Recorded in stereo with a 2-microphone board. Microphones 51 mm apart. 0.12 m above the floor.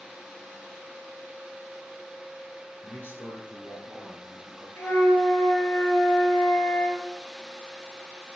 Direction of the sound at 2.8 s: 50° left (ahead or behind).